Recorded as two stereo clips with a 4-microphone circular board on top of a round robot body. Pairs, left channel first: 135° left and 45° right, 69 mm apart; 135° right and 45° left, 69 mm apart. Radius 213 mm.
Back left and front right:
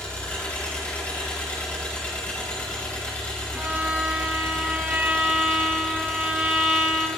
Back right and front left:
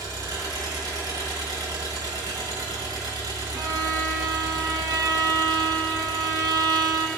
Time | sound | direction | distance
0.0 | an engine running | 65° left | 4 m
3.5 | a violin | 20° left | 1.1 m